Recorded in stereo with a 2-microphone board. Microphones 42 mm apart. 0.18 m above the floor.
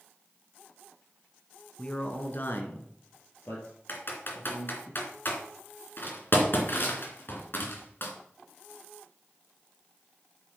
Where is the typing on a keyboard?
50° left (ahead or behind), 2.5 m.